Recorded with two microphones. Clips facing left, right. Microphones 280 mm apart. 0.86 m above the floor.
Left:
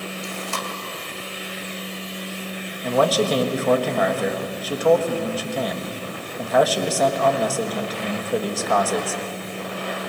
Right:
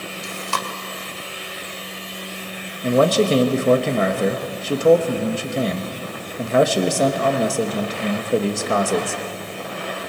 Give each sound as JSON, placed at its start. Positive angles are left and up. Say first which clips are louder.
{"t": 0.2, "sound": "chewing", "louder": "even", "side_deg": -80, "distance_m": 1.5}
{"t": 2.8, "sound": "a man speaking", "louder": "right 4 dB", "side_deg": -25, "distance_m": 1.3}